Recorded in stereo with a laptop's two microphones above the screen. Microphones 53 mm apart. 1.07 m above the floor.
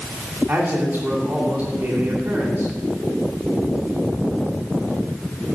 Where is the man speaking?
40° right (ahead or behind), 2.5 m.